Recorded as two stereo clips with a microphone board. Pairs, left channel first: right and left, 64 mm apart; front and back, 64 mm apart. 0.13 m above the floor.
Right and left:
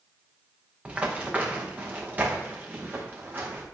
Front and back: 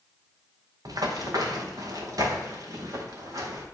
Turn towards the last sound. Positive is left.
turn(degrees=150)